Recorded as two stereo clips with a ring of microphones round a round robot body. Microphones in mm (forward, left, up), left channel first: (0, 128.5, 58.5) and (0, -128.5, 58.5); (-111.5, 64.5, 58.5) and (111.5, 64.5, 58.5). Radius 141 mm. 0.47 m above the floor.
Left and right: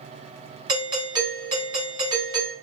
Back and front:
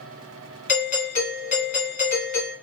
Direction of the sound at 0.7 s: 155° right.